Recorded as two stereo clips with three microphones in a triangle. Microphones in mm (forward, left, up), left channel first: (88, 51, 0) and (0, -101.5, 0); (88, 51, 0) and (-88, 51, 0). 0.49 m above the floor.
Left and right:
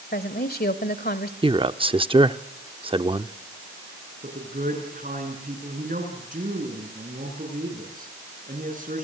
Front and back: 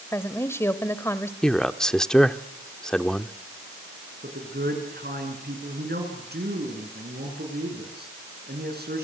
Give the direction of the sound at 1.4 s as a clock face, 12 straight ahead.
3 o'clock.